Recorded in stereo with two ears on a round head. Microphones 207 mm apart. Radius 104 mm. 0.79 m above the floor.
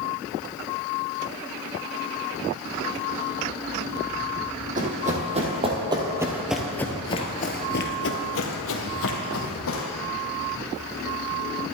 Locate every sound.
4.8 s running footsteps: 35° right (ahead or behind), 2.5 m; by 9.8 s 70° left (ahead or behind), 2.5 m